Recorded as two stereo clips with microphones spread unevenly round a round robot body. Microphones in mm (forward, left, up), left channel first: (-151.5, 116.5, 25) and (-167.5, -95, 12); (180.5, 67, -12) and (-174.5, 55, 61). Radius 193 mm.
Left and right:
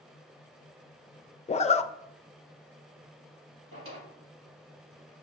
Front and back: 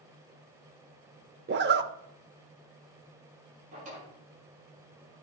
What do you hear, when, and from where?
1.5 s a zipper: 125° left, 0.5 m
3.7 s a drawer: 105° right, 5 m